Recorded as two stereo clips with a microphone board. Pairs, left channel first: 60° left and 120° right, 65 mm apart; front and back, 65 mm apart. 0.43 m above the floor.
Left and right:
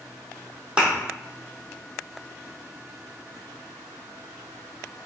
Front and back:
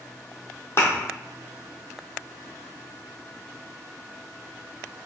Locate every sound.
0.8 s a thud: 50° right, 1.0 m